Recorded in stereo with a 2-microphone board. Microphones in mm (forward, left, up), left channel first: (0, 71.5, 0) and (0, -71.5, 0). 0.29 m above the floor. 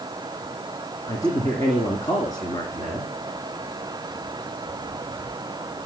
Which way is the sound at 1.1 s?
25° left (ahead or behind).